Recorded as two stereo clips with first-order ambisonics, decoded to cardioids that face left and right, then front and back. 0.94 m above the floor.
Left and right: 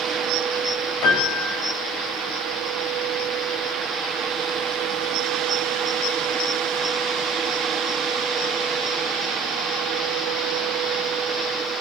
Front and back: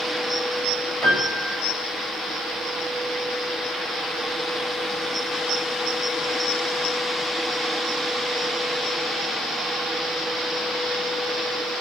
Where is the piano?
115° left, 5.5 m.